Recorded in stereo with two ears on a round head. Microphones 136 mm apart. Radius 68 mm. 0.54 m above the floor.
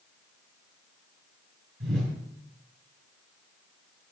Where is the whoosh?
80° right, 5.5 m.